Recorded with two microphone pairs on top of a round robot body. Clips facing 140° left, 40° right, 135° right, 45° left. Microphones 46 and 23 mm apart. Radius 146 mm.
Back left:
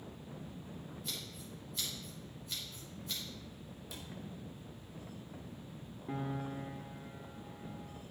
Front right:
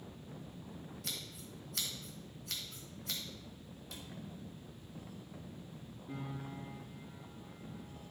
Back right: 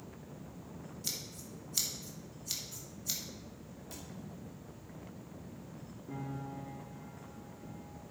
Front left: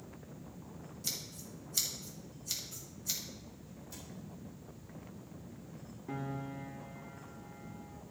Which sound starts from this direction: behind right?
A cupboard door, at 3.9 s.